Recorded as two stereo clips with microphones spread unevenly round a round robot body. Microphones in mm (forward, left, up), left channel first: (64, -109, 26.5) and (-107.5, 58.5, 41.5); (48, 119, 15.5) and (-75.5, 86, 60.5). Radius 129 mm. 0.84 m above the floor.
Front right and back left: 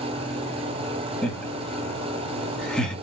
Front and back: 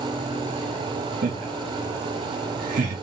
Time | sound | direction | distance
1.2 | laughter | 130° right | 2 m